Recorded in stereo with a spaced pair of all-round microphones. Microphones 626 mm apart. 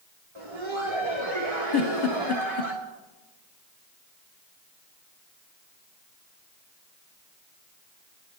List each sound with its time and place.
0.3 s laughter: 50° right (ahead or behind), 1.5 m
1.7 s a giggle: 40° left (ahead or behind), 0.8 m